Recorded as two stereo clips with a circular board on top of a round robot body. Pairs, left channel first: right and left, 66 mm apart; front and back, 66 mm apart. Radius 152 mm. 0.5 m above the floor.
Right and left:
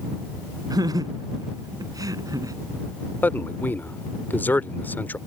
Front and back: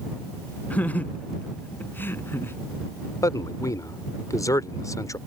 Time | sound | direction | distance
0.7 | laughter | 70° left | ?
3.2 | a man speaking | 30° right | ?